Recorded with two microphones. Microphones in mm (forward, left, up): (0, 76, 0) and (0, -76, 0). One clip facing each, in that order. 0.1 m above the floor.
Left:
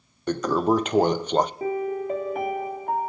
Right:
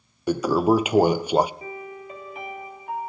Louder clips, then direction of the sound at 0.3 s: Right 2 dB; 10° right (ahead or behind).